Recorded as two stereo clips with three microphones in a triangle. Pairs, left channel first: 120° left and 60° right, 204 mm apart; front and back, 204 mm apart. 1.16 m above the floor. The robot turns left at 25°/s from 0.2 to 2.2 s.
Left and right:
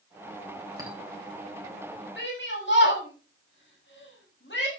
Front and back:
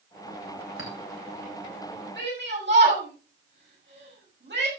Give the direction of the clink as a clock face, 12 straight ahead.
12 o'clock.